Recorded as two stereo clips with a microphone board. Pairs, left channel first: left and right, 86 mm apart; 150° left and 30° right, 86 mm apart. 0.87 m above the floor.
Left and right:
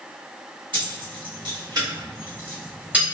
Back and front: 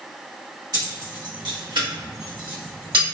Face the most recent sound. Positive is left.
turn(degrees=-15)